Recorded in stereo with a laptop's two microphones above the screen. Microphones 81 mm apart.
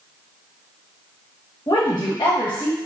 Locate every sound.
1.7 s a woman speaking: 70° left (ahead or behind), 1.3 m